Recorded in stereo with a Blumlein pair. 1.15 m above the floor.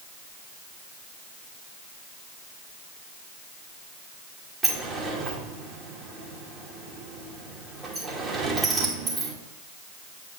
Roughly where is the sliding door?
Ahead.